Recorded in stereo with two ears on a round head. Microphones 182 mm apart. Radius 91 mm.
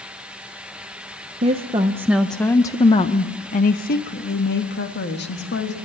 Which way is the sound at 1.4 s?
35° right (ahead or behind).